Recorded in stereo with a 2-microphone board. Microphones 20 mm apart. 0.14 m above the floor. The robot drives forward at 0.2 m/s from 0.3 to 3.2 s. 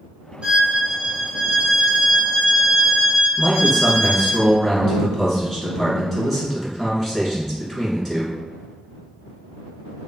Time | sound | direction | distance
0.4 | a violin | 60° right (ahead or behind) | 0.6 m
3.4 | a man speaking | 5° right (ahead or behind) | 1.3 m